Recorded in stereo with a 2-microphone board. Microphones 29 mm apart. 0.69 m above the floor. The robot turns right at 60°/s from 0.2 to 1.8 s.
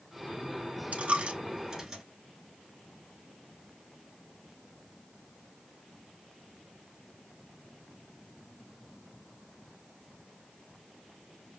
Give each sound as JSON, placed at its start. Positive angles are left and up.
{"t": 0.9, "sound": "a dropped coin", "side_deg": -55, "distance_m": 1.1}